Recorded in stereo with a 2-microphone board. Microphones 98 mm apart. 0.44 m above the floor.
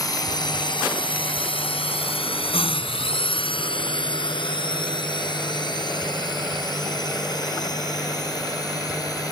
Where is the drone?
40° left (ahead or behind).